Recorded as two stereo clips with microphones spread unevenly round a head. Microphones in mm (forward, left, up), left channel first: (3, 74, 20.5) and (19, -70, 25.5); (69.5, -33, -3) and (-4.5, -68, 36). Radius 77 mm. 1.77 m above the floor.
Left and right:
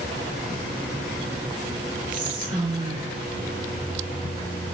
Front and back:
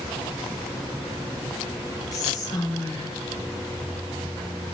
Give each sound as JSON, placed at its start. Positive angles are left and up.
{"t": 2.1, "sound": "whispering", "azimuth_deg": -35, "distance_m": 0.9}